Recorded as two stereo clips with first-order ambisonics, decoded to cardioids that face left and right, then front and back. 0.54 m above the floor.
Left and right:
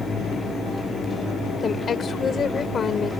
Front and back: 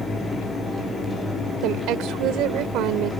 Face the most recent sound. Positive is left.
turn(degrees=155)